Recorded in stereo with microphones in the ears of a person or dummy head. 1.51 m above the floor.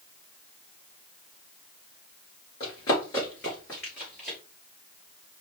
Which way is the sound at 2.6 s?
25° left (ahead or behind).